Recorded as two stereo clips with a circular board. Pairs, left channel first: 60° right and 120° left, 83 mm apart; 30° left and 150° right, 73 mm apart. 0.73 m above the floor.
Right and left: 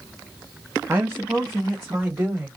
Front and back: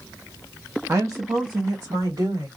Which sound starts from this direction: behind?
A woman speaking, at 0.9 s.